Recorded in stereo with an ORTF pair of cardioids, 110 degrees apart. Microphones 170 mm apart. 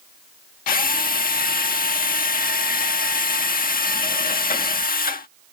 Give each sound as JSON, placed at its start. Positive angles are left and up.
{"t": 0.7, "sound": "a drill", "azimuth_deg": 60}